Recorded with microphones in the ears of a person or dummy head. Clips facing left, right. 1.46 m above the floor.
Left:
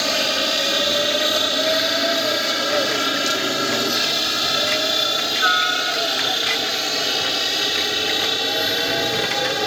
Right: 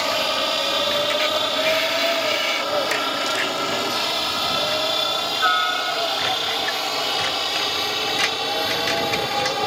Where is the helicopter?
25° left (ahead or behind).